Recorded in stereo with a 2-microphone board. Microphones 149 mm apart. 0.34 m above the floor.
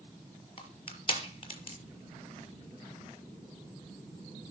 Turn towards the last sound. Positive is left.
turn(degrees=40)  # may be behind; listen again after turning